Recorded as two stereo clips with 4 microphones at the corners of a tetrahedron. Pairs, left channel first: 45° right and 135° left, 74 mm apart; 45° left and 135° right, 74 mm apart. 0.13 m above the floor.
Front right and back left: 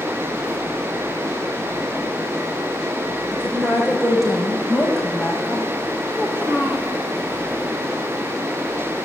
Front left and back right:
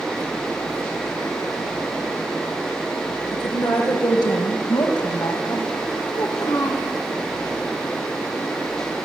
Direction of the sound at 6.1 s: 65° left.